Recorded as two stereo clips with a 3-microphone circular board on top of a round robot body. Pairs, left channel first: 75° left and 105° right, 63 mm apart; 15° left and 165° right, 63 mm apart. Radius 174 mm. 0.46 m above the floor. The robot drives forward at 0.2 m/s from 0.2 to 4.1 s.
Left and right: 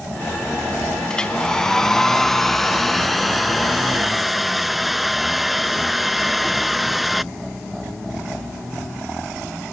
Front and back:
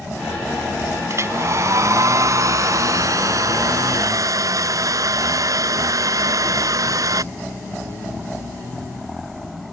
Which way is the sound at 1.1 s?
150° left.